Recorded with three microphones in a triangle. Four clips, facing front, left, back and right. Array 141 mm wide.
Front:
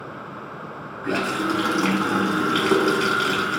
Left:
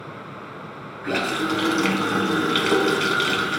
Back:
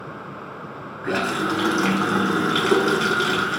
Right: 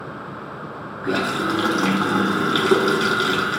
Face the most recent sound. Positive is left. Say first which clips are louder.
# right 2 dB, back 1 dB
turn(degrees=-105)